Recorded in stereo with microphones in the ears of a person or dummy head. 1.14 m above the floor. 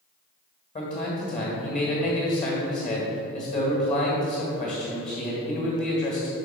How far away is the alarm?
I don't hear an alarm.